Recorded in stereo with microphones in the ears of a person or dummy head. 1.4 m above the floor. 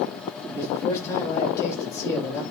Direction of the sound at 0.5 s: 15° left (ahead or behind).